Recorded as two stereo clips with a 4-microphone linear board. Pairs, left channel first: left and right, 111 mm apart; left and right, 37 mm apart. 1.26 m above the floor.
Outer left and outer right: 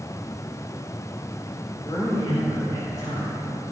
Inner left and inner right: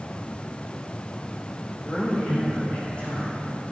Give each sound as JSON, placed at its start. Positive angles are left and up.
{"t": 1.8, "sound": "a man speaking", "side_deg": 30, "distance_m": 5.0}